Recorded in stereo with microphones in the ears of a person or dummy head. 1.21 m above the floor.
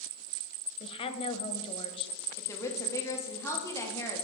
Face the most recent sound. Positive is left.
turn(degrees=15)  # may be behind; listen again after turning